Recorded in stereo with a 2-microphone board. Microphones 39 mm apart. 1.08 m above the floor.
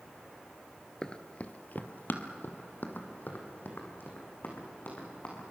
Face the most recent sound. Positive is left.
turn(degrees=50)  # may be behind; listen again after turning